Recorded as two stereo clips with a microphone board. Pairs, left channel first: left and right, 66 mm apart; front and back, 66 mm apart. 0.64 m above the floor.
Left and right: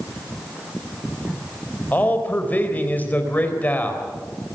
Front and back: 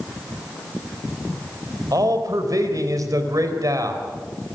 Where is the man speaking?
155° left, 3.5 m.